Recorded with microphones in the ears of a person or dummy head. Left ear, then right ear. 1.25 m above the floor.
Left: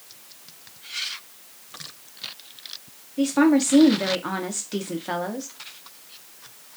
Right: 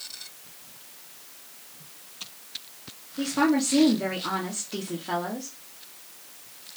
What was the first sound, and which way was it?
A woman speaking, 40° left (ahead or behind).